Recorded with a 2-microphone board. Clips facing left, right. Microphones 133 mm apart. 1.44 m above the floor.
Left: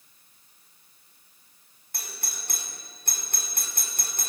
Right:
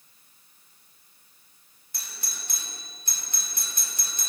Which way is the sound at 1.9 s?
55° left (ahead or behind).